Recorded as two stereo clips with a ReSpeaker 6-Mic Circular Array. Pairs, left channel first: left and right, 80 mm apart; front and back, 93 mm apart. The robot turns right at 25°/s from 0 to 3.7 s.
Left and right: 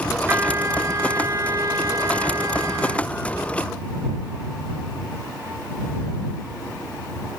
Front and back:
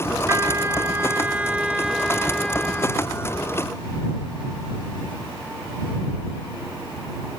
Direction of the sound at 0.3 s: 135° right.